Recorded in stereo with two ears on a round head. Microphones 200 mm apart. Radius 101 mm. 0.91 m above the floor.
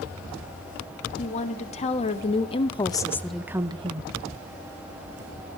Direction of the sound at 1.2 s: 35° left (ahead or behind).